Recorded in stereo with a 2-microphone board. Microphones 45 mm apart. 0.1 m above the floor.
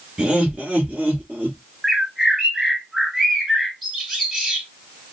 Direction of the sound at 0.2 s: 15° right (ahead or behind).